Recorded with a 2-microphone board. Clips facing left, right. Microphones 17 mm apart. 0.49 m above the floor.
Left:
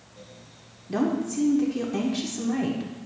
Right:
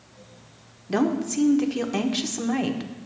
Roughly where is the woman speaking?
Right.